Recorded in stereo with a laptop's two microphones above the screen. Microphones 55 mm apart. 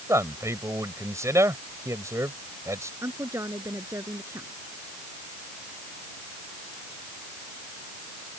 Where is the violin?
No violin in this recording.